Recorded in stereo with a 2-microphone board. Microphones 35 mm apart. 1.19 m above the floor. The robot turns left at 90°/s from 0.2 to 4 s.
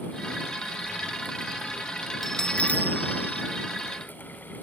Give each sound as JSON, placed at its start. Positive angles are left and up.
{"t": 2.2, "sound": "a bell", "azimuth_deg": 180}